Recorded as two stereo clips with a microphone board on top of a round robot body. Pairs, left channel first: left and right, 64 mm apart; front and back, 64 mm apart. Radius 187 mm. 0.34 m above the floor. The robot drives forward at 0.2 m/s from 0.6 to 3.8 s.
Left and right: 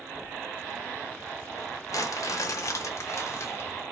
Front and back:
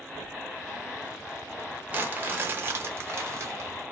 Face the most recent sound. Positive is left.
turn(degrees=135)